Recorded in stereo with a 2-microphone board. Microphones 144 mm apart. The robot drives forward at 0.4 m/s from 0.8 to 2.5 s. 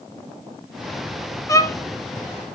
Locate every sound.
1.5 s a violin: 20° left (ahead or behind), 0.7 m